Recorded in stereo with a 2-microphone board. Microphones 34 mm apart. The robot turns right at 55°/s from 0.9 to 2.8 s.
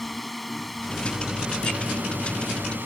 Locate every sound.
0.0 s a drone: 175° left; by 2.9 s 80° right